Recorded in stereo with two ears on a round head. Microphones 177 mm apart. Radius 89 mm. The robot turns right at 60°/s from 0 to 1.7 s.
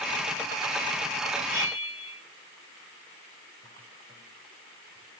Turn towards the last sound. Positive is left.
turn(degrees=-30)  # may be behind; listen again after turning